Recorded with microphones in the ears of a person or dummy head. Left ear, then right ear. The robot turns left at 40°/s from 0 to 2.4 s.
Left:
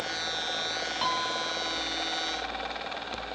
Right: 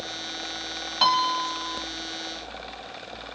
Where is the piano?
35° right; by 1.8 s 70° right.